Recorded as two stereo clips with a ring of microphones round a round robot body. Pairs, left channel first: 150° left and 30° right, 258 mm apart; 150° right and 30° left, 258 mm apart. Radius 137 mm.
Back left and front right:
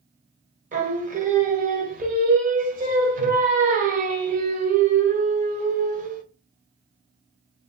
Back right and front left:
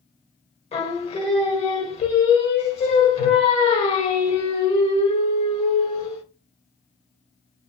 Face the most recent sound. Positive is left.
turn(degrees=-85)